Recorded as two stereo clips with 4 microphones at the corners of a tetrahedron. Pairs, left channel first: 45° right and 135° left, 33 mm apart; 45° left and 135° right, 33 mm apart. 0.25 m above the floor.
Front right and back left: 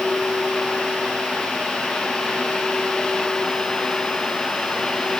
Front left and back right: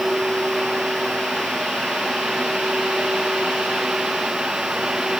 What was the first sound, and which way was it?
Only background noise.